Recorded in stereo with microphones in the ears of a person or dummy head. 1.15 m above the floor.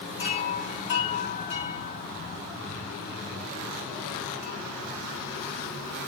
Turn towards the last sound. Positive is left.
turn(degrees=30)  # may be behind; listen again after turning